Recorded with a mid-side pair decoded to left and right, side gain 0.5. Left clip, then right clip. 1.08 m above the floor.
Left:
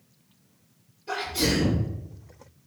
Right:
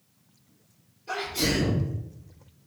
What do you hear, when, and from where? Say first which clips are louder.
1.1 s a sneeze: left 1 dB; 10° left, 1.9 m